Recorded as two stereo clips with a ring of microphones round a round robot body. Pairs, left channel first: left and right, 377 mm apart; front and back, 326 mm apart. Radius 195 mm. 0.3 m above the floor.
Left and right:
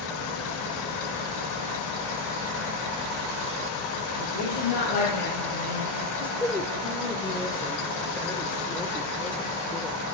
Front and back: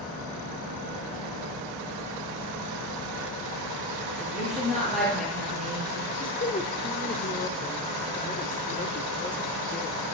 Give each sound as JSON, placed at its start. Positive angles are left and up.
{"t": 4.2, "sound": "a woman speaking", "azimuth_deg": 90, "distance_m": 8.0}
{"t": 6.1, "sound": "a woman speaking", "azimuth_deg": 10, "distance_m": 1.5}